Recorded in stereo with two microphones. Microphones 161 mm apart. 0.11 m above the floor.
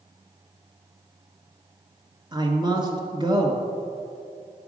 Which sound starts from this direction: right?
A man speaking, at 2.3 s.